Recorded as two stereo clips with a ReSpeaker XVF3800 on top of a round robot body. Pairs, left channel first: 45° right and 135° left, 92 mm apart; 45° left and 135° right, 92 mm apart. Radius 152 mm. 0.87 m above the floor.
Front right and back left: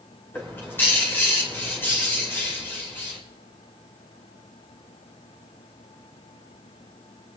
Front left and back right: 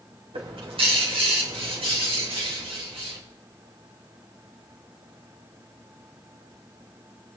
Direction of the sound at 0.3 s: 115° right.